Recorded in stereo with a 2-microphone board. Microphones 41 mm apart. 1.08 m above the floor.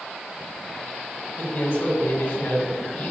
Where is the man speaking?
65° left (ahead or behind), 5.5 m.